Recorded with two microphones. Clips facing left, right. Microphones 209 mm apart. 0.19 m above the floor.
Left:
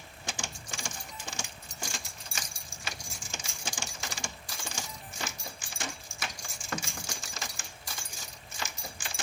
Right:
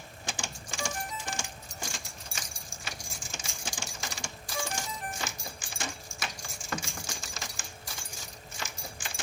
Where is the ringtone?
75° right (ahead or behind).